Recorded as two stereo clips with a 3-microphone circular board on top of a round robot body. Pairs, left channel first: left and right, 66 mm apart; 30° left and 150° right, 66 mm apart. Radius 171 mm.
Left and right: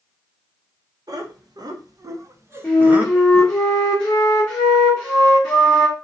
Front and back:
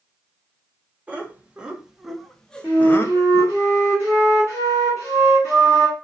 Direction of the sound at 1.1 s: 80° right.